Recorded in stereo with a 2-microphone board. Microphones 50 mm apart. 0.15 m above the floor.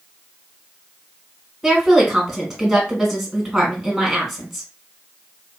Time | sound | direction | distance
1.6 | a woman speaking | 5° right (ahead or behind) | 1.5 m